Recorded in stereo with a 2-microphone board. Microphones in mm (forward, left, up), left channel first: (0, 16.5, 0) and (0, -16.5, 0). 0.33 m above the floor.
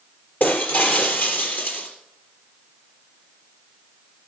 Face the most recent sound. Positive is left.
turn(degrees=60)  # may be behind; listen again after turning